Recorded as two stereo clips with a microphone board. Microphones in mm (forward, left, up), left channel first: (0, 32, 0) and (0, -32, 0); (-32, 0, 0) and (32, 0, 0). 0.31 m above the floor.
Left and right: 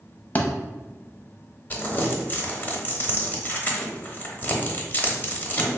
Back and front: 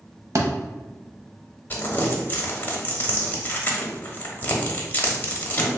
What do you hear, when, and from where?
0.3 s a thud: 30° left, 0.5 m
1.7 s crumpling: 135° left, 0.7 m